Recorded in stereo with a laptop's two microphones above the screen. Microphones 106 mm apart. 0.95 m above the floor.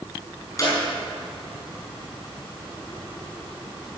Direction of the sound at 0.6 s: 35° left (ahead or behind).